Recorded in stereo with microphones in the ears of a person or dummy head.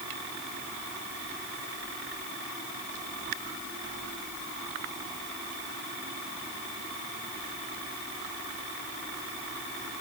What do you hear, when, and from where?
Only background noise.